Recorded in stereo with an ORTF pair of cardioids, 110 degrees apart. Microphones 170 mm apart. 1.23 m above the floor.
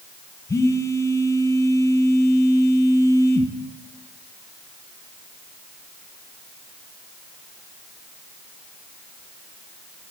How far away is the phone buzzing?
About 0.8 m.